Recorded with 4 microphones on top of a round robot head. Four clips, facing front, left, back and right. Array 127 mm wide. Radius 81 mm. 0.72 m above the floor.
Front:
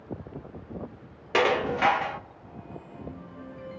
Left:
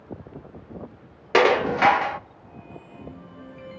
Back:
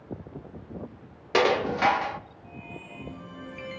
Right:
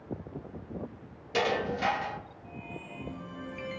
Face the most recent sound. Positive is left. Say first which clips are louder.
# left 11 dB, back 1 dB
turn(degrees=100)